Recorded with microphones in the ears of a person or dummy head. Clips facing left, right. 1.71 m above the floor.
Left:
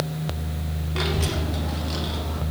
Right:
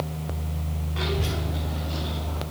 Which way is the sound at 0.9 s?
60° left (ahead or behind).